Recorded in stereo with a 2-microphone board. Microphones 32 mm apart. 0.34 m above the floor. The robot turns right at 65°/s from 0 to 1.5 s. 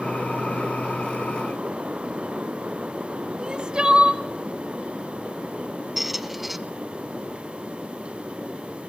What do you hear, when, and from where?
3.4 s crying: 25° right (ahead or behind), 0.7 m
6.0 s a squeak: 5° right (ahead or behind), 0.6 m